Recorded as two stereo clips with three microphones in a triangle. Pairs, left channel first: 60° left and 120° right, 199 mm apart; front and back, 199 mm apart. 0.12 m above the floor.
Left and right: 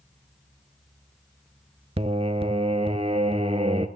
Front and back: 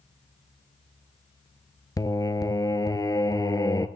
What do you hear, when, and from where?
2.0 s singing: 65° right, 0.5 m